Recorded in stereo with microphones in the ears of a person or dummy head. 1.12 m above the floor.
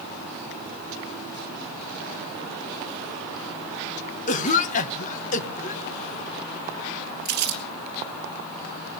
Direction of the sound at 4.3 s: 35° left (ahead or behind).